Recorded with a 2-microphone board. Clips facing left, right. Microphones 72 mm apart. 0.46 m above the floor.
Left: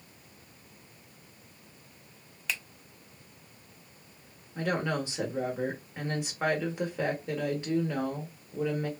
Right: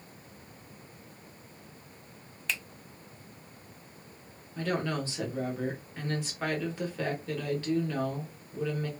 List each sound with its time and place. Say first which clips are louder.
2.5 s a finger snap: even; 5° left (ahead or behind), 0.5 m
4.5 s a woman speaking: left 1 dB; 15° left (ahead or behind), 0.9 m